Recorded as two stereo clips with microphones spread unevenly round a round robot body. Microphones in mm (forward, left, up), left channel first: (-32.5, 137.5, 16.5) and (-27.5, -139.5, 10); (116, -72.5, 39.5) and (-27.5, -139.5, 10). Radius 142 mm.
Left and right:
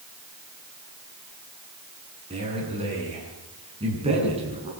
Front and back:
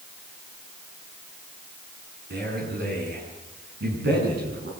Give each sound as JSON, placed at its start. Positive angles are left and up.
{"t": 2.3, "sound": "a man speaking", "azimuth_deg": -160, "distance_m": 7.5}